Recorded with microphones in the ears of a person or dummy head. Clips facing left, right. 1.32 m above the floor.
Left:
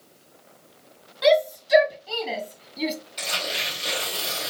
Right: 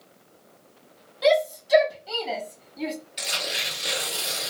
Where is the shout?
Centre (ahead or behind), 1.7 m; by 3.0 s 25° left (ahead or behind), 0.9 m.